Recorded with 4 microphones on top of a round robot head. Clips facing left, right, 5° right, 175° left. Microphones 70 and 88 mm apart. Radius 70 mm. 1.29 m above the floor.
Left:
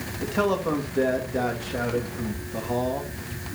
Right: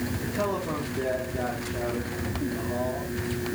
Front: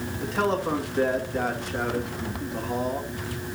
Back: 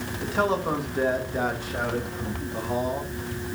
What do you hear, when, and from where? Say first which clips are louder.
0.2 s a man speaking: left 7 dB, back 1 dB; 95° left, 2 m